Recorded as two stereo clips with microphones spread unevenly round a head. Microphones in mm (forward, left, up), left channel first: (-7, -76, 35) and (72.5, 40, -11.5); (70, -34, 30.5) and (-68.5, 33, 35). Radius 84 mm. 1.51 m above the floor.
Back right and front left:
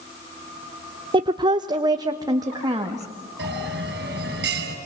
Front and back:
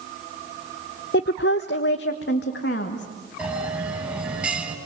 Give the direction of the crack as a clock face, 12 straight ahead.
I don't hear a crack.